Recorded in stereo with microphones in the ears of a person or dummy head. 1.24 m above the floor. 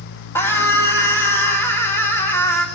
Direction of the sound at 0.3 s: 10° left (ahead or behind).